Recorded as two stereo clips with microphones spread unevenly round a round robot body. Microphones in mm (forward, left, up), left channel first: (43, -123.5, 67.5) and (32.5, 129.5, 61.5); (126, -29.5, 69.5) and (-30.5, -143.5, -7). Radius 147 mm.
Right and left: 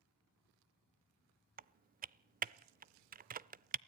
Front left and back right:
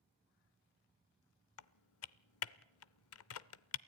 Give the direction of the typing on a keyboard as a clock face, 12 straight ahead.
11 o'clock.